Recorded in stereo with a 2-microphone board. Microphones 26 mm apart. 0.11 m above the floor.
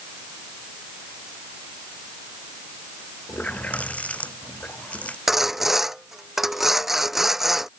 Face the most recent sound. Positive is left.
turn(degrees=-10)  # may be behind; listen again after turning